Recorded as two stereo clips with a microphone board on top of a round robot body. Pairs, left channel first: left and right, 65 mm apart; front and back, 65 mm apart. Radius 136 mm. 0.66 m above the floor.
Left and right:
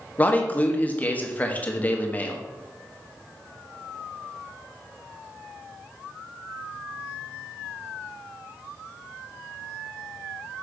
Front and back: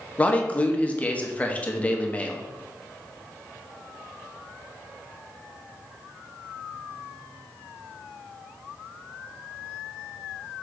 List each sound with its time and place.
0.2 s a man speaking: 50° left, 1.3 m